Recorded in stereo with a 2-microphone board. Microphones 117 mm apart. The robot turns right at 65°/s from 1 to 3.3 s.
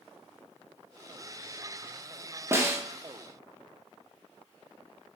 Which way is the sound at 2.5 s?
20° right (ahead or behind).